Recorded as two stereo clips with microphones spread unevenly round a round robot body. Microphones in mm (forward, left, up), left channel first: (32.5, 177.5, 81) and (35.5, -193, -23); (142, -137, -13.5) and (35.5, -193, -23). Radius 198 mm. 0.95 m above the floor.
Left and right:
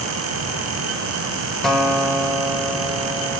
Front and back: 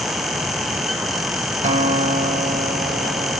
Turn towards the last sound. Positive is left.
turn(degrees=170)